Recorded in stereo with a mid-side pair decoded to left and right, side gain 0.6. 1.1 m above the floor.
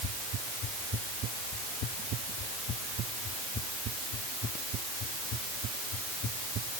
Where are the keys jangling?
I don't hear keys jangling.